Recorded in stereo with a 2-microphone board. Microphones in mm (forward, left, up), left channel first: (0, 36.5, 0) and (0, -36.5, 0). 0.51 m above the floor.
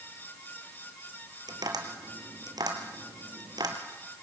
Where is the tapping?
65° right (ahead or behind), 2.5 m.